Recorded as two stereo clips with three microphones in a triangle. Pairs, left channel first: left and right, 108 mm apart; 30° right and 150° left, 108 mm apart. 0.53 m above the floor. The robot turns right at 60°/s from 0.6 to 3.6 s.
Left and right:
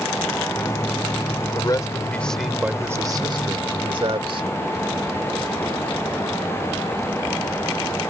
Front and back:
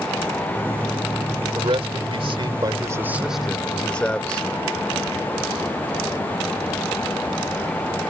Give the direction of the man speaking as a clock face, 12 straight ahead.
8 o'clock.